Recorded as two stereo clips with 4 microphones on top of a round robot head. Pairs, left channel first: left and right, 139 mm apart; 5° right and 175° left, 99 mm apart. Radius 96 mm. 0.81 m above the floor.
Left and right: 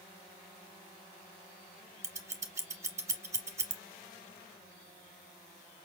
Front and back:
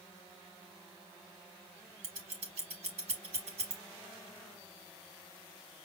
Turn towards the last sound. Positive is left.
turn(degrees=-155)